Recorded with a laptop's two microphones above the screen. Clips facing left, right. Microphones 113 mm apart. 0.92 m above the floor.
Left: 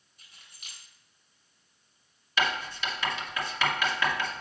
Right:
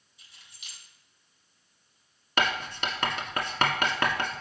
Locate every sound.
0.2 s keys jangling: 50° left (ahead or behind), 3 m
2.4 s writing: 50° right (ahead or behind), 1.3 m